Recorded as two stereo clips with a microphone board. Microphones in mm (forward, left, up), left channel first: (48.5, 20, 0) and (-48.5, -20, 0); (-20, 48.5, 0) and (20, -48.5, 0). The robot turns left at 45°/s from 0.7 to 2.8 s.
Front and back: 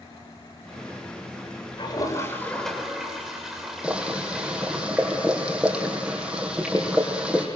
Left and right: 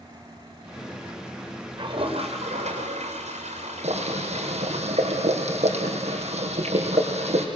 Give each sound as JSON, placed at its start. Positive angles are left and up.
{"t": 1.8, "sound": "a toilet flushing", "azimuth_deg": -20, "distance_m": 7.0}
{"t": 3.8, "sound": "boiling", "azimuth_deg": -75, "distance_m": 5.5}